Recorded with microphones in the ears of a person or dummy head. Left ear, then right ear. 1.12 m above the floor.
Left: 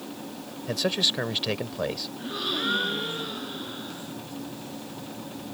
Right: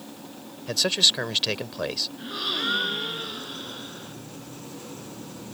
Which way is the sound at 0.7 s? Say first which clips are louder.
Right 4 dB; 25° right (ahead or behind).